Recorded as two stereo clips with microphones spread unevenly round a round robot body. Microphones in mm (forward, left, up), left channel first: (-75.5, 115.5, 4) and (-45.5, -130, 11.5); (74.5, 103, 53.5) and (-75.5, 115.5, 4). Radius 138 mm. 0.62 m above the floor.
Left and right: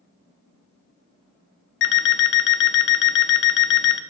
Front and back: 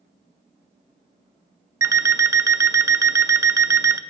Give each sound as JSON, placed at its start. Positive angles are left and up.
{"t": 1.8, "sound": "an alarm clock", "azimuth_deg": 120, "distance_m": 0.6}